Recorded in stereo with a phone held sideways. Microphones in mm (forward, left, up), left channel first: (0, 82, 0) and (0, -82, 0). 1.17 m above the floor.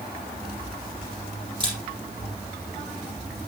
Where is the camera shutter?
30° right (ahead or behind), 6 m.